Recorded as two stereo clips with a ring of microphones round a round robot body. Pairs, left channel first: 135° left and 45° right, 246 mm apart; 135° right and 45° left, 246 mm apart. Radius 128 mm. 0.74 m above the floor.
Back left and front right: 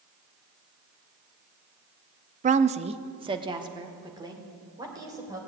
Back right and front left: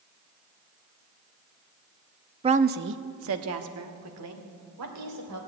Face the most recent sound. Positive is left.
turn(degrees=30)